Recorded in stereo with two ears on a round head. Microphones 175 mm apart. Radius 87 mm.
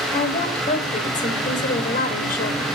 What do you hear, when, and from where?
0.1 s a woman speaking: 35° left (ahead or behind), 3 m; by 2.7 s 45° left (ahead or behind), 1.9 m